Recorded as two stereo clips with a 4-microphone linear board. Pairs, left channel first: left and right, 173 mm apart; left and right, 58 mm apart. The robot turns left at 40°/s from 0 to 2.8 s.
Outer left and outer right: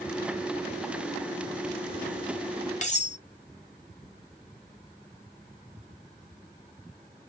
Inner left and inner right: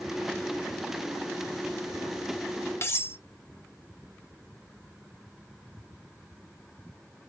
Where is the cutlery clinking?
40° left (ahead or behind), 0.5 m.